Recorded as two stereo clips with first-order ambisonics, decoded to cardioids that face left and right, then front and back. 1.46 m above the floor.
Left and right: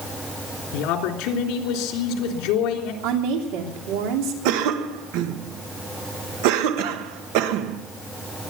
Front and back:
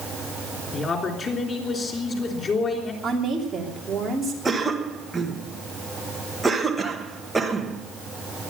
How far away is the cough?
About 1.5 m.